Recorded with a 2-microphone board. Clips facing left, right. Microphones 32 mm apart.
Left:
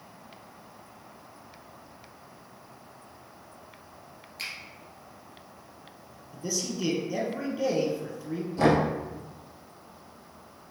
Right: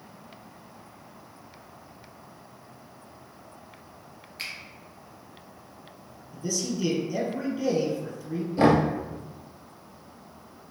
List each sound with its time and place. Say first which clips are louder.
4.4 s a finger snap: right 1 dB; 15° right (ahead or behind), 1.7 m
6.3 s a man speaking: right 2 dB; 15° left (ahead or behind), 1.9 m
8.6 s knocking: right 2 dB; 25° right (ahead or behind), 1.2 m